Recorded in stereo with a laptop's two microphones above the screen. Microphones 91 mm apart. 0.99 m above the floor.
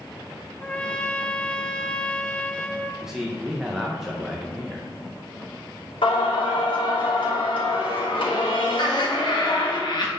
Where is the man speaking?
5° right (ahead or behind), 0.8 m.